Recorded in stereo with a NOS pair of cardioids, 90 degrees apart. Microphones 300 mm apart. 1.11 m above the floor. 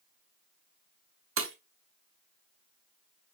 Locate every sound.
1.4 s breaking glass: 45° right, 2.5 m